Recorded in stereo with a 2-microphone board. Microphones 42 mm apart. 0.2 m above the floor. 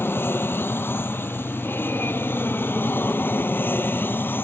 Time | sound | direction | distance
0.0 | an aircraft | 65° left (ahead or behind) | ?